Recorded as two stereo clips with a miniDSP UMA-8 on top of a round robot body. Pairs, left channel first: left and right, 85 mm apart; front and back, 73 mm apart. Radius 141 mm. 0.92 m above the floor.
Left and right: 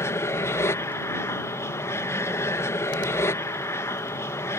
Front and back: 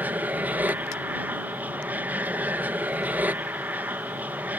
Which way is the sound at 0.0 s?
125° left.